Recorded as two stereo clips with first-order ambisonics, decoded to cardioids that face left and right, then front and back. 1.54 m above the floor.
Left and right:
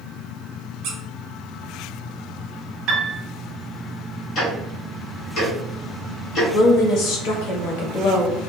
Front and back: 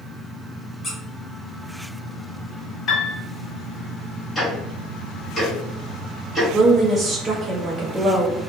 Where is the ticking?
85° left, 1.1 m.